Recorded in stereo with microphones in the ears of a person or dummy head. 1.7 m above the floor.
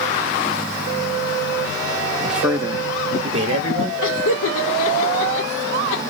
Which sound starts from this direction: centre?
A man speaking, at 2.2 s.